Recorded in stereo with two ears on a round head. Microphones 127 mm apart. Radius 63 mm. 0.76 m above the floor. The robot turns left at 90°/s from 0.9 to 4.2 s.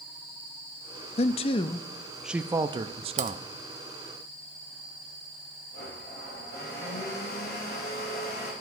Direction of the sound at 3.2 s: 50° right (ahead or behind).